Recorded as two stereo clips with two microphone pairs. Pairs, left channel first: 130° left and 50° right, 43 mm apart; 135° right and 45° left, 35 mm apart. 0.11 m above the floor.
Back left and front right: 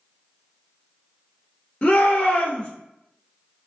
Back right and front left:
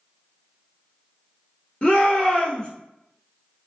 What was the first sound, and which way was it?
A shout, 175° right.